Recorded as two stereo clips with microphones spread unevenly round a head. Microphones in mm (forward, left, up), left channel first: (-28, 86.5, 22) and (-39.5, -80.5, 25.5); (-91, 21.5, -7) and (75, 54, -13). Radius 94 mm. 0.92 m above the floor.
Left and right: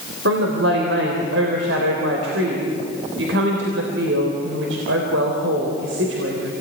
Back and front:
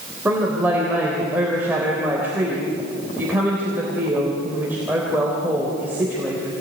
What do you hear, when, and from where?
0.2 s a woman speaking: 70° right, 3.5 m